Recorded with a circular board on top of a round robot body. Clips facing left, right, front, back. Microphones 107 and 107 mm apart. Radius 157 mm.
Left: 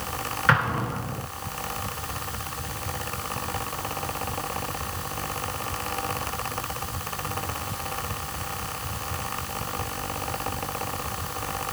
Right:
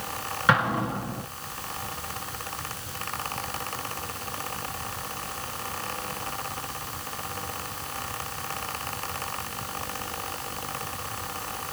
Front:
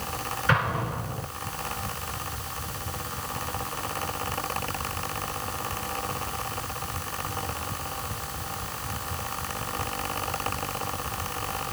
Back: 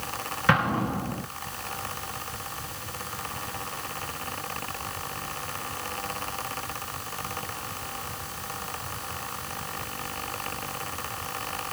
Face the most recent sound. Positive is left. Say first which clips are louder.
# right 1 dB, back 3 dB
turn(degrees=-165)